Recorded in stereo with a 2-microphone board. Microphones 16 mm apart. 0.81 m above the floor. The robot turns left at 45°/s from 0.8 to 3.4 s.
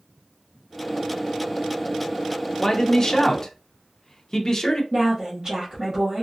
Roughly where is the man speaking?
Left.